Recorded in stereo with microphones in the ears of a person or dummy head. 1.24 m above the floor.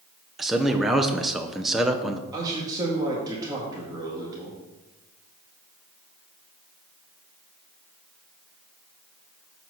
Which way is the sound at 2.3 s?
25° right (ahead or behind).